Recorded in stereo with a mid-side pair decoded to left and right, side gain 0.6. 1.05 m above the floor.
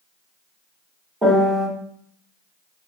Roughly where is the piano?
Ahead.